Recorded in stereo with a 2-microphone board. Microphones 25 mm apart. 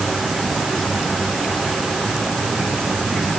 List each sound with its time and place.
Only background noise.